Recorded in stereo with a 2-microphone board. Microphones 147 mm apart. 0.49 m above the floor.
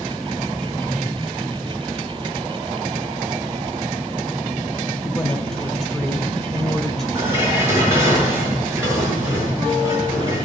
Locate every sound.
5.0 s a woman speaking: centre (ahead or behind), 2.0 m
7.2 s dishes clattering: 20° right (ahead or behind), 4 m